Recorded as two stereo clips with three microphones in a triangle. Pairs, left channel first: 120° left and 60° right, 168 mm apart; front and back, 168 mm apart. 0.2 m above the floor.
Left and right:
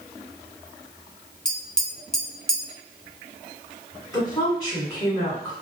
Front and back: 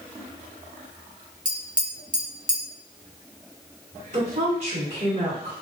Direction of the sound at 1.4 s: 155° right.